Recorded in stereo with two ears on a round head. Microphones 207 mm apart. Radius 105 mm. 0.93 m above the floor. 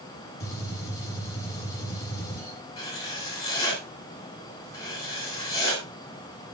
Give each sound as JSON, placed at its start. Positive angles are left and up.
{"t": 0.4, "sound": "a gunshot", "side_deg": 15, "distance_m": 7.5}
{"t": 2.8, "sound": "writing", "side_deg": 15, "distance_m": 3.5}